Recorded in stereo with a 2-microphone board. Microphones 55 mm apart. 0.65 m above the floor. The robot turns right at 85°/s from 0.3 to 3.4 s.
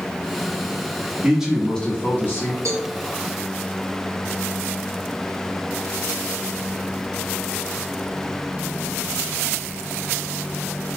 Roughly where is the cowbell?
Right.